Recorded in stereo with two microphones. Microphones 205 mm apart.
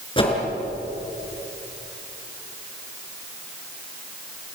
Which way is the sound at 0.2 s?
25° left (ahead or behind).